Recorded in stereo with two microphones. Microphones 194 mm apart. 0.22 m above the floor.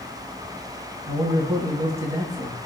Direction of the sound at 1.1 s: 15° right (ahead or behind).